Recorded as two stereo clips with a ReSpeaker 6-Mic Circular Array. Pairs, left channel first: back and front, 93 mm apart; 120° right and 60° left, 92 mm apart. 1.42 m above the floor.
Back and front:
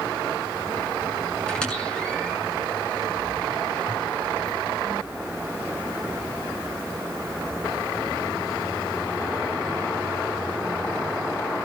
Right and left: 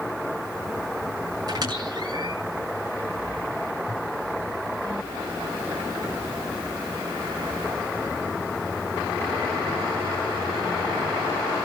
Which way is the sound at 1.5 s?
105° left.